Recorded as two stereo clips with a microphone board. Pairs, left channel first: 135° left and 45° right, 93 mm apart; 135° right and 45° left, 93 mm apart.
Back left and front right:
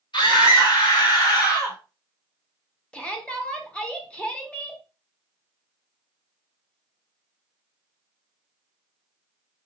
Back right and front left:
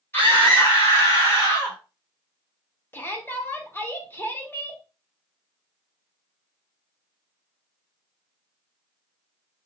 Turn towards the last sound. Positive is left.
turn(degrees=-165)